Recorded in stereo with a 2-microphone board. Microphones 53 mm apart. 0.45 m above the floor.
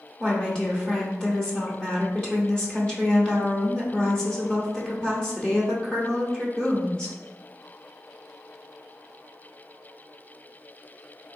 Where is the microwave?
No microwave in this recording.